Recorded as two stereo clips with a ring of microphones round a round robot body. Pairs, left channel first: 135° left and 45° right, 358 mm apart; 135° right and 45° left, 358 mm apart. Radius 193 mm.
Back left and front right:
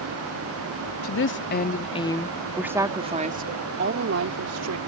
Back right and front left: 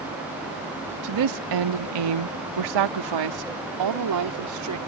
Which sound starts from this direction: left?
A woman speaking, at 1.0 s.